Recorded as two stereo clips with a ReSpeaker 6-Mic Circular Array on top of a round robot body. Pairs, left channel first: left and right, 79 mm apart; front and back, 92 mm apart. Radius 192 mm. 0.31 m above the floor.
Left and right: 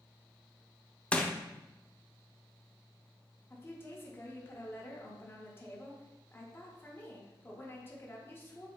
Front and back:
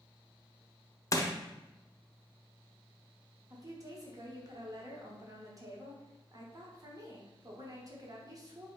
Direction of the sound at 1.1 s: 20° left.